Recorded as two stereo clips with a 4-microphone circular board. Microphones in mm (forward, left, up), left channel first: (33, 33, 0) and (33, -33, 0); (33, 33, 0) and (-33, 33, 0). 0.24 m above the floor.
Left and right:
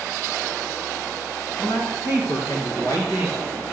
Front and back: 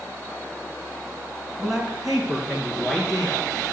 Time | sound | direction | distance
1.6 | a man speaking | 100° left | 2 m